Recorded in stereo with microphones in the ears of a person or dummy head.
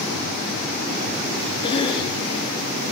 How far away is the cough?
About 1.3 m.